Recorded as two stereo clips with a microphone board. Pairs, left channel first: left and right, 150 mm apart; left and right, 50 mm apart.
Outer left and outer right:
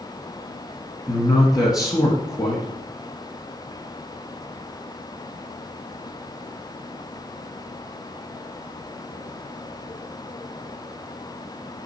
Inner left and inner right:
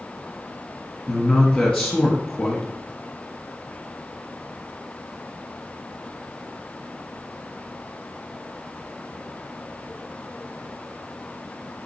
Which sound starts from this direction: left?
A man speaking, at 1.1 s.